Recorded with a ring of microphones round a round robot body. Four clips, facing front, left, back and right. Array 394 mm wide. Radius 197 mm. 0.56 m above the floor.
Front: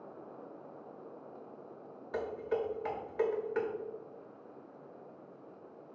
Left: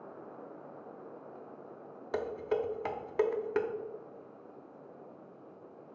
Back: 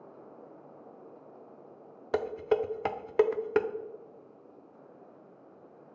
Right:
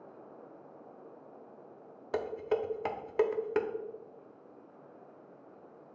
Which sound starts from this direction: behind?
Dishes clattering, at 2.1 s.